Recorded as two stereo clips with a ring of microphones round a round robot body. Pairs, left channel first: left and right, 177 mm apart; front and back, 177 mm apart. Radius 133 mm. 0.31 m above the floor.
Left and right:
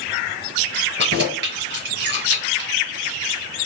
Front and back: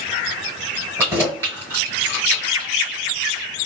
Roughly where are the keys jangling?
Right.